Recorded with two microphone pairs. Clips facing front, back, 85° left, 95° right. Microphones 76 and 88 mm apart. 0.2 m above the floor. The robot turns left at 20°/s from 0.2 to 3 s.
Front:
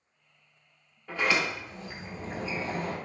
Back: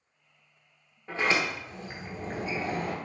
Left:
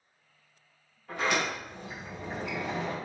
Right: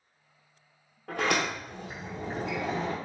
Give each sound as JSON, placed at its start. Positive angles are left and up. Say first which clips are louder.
{"t": 1.1, "sound": "a sliding door", "louder": "even, right 1 dB", "azimuth_deg": -110, "distance_m": 1.0}